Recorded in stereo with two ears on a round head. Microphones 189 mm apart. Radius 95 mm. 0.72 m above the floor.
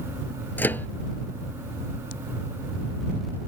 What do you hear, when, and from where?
0.6 s a microwave: 10° left (ahead or behind)